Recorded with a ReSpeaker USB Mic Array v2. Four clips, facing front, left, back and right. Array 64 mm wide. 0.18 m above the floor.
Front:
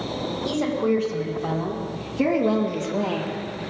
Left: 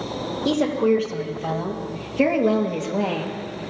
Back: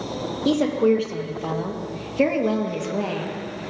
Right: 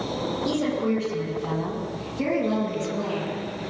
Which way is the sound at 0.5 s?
140° left.